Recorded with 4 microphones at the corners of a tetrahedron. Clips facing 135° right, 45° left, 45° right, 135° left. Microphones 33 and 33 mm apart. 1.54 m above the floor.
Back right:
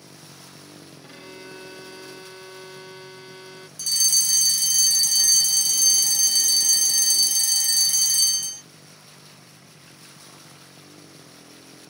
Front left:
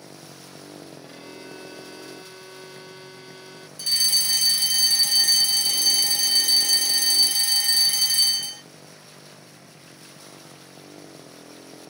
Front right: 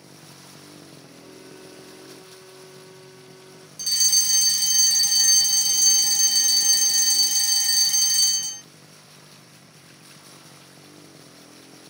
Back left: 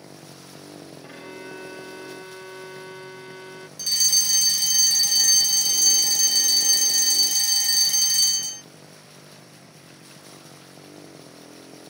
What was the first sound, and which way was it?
A motorcycle, 90° left.